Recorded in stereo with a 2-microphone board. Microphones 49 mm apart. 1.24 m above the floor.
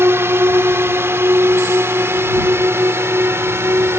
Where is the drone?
60° right (ahead or behind).